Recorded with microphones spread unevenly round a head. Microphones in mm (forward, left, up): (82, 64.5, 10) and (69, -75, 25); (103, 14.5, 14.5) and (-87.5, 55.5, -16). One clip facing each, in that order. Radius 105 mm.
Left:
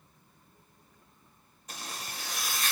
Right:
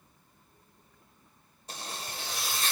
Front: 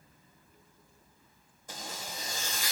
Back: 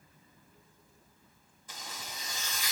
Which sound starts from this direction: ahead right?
A zipper, at 1.7 s.